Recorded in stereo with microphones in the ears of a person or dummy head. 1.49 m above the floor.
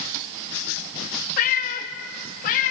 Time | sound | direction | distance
1.4 | a cat meowing | 45° left (ahead or behind) | 1.3 m